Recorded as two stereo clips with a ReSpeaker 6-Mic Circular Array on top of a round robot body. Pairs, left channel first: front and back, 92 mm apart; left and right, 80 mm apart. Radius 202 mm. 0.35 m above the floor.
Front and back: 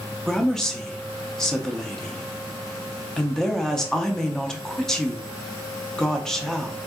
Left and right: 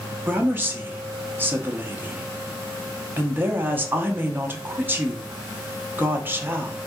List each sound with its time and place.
0.3 s a woman speaking: 80° right, 0.9 m